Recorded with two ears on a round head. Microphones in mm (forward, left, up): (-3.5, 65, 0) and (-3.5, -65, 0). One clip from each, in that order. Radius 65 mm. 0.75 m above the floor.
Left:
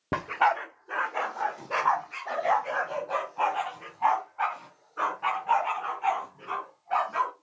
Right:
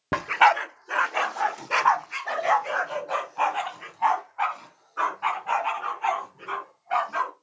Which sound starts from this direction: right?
A dog barking, at 0.1 s.